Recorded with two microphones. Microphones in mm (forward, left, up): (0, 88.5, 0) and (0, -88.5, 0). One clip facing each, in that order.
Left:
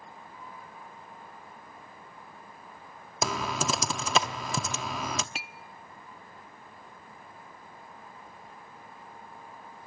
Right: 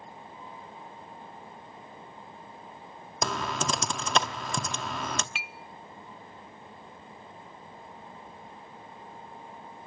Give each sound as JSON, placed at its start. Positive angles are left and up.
{"t": 3.2, "sound": "typing on a keyboard", "side_deg": 5, "distance_m": 0.9}
{"t": 5.3, "sound": "a clink", "side_deg": 40, "distance_m": 0.6}